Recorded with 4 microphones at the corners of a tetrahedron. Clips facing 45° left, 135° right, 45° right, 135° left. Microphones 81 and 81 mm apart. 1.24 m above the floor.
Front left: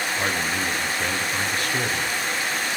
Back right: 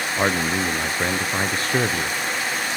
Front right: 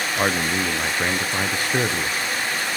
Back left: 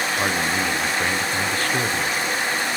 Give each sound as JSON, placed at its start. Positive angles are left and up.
{"t": 0.2, "sound": "a man speaking", "azimuth_deg": -105, "distance_m": 0.6}